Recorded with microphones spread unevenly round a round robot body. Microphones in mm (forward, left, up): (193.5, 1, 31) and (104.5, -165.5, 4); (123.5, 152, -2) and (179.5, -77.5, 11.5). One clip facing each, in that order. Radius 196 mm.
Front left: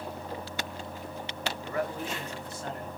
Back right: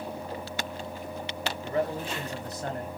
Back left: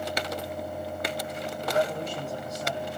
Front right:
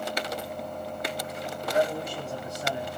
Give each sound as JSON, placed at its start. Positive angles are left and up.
{"t": 1.6, "sound": "a man speaking", "azimuth_deg": -155, "distance_m": 1.2}